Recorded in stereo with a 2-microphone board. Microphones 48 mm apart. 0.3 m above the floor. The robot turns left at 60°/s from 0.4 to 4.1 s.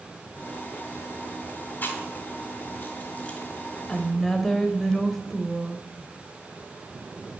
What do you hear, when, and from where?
1.8 s chewing: 40° left (ahead or behind), 2 m; by 3.4 s 20° left (ahead or behind), 2 m
3.9 s a woman speaking: 10° left (ahead or behind), 1.2 m; by 5.9 s 5° left (ahead or behind), 1.2 m